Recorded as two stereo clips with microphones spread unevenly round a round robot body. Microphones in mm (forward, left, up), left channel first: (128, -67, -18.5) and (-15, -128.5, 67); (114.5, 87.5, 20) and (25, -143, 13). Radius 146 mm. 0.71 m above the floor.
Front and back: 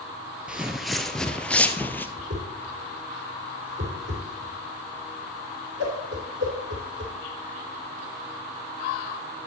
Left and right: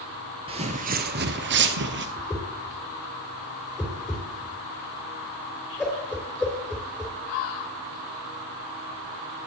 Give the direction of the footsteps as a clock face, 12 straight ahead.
6 o'clock.